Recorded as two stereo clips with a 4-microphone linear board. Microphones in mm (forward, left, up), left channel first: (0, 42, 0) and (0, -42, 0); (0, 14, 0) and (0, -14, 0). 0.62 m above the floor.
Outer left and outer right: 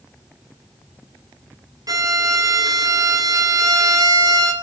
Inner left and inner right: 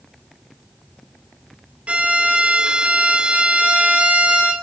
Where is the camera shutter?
I don't hear a camera shutter.